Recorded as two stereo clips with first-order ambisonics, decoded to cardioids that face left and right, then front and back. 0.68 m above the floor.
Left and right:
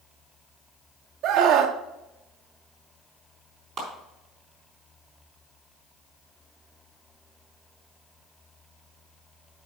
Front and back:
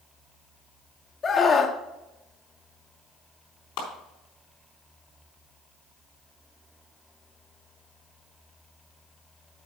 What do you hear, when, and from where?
1.2 s a scream: 65° right, 0.9 m
3.8 s a clap: 25° right, 4 m